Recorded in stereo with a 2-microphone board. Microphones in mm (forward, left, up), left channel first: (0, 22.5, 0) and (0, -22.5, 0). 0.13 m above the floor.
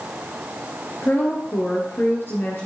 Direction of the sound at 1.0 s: 60° left (ahead or behind).